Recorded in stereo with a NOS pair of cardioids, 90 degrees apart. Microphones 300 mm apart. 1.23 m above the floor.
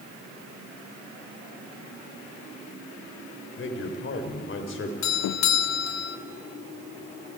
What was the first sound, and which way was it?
A man speaking, 40° left.